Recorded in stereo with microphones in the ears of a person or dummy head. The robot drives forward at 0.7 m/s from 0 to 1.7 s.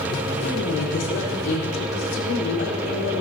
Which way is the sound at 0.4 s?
85° left.